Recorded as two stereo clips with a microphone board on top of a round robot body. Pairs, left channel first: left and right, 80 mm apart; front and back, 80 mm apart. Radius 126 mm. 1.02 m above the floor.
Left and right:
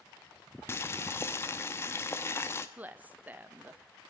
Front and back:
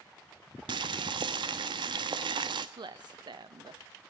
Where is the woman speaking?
160° right, 1.2 m.